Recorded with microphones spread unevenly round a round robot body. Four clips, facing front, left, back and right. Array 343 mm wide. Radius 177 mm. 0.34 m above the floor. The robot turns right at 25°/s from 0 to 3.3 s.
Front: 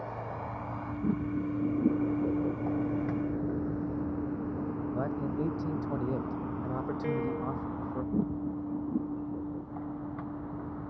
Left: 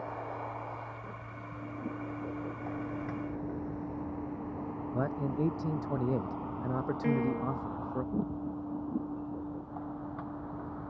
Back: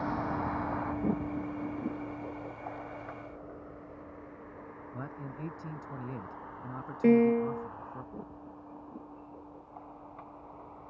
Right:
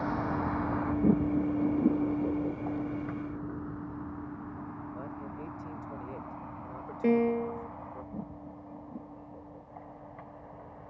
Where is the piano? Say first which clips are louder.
Right 6 dB, back 12 dB; 170° right.